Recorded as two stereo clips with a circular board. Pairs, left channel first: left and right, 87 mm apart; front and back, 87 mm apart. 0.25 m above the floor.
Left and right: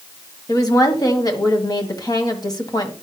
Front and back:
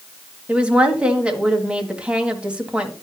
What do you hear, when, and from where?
0.5 s a woman speaking: 105° left, 1.8 m